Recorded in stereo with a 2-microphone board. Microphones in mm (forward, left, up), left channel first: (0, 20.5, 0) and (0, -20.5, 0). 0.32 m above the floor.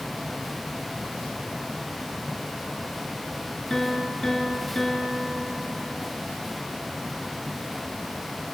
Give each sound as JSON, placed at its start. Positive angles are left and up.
{"t": 3.7, "sound": "a piano", "side_deg": 15, "distance_m": 3.0}